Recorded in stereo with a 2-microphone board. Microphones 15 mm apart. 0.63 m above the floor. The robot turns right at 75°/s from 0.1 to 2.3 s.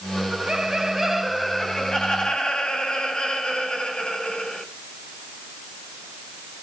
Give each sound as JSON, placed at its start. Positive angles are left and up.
{"t": 0.2, "sound": "laughter", "azimuth_deg": -85, "distance_m": 4.5}